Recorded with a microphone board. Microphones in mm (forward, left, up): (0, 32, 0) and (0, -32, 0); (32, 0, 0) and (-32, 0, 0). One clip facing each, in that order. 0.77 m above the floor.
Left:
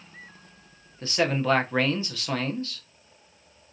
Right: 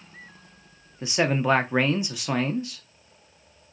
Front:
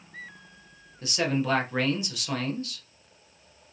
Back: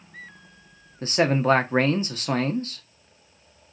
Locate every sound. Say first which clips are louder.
1.0 s a man speaking: right 1 dB, back 6 dB; 160° right, 0.5 m